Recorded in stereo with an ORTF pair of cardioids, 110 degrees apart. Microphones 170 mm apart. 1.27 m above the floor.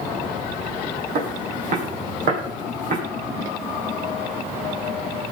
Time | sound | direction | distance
1.1 | footsteps | 55° right | 4.5 m